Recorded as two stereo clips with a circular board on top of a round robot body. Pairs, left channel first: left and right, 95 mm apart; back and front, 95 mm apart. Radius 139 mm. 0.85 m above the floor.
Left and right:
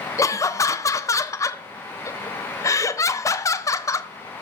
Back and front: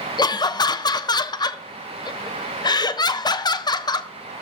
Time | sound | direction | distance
0.2 | laughter | 145° left | 0.6 m